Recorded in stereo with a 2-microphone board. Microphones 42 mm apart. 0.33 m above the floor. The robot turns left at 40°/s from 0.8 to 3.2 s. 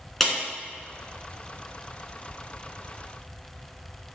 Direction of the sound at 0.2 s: 5° left (ahead or behind).